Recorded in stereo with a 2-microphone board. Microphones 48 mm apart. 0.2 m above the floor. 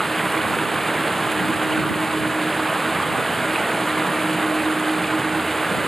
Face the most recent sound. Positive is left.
turn(degrees=10)  # may be behind; listen again after turning